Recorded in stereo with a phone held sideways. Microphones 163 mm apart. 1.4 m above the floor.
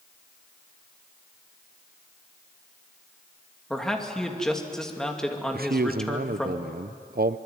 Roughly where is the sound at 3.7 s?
Centre.